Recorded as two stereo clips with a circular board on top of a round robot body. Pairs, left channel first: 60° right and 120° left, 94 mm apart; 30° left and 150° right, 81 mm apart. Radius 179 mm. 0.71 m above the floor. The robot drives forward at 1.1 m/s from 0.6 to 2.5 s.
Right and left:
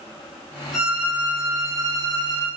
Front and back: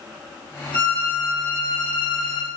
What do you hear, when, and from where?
0.7 s a violin: 40° left, 2.5 m; by 2.5 s 85° left, 1.7 m